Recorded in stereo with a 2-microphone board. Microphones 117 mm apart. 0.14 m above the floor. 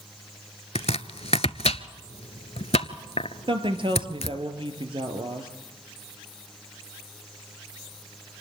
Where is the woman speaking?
50° right (ahead or behind), 2.5 m.